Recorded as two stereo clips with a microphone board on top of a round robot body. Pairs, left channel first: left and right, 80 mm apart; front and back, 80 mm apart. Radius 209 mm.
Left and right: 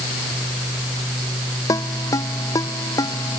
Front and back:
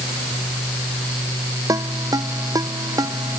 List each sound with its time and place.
1.7 s a ringtone: 135° left